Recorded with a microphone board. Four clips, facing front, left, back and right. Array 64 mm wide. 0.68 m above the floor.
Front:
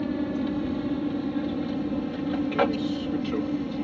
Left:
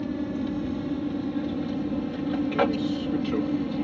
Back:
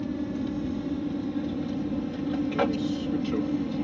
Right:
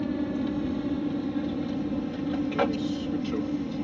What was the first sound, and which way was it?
An aircraft, 10° right.